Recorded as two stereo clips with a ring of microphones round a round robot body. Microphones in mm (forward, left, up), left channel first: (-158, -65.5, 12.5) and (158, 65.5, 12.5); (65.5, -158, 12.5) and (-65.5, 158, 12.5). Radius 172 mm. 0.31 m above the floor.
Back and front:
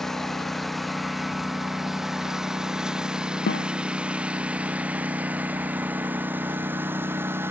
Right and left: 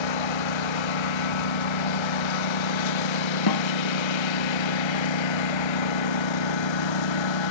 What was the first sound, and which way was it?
A lawn mower, 70° right.